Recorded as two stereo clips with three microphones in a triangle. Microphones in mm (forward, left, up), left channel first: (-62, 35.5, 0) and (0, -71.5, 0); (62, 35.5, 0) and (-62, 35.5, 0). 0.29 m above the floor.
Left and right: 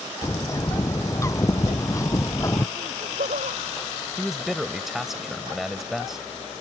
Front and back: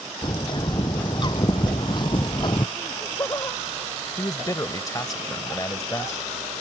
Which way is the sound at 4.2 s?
25° left.